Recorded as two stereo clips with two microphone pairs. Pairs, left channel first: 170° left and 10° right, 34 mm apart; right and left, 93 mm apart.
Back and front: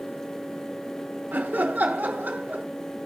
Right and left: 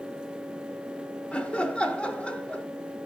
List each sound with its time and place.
1.3 s laughter: 15° right, 1.2 m